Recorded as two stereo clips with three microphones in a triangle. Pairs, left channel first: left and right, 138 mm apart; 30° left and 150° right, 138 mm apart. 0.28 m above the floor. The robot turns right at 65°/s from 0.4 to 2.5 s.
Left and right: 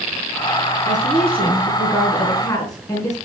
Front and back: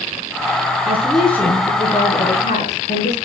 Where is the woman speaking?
80° right, 3.5 m; by 3.2 s 25° left, 3.5 m.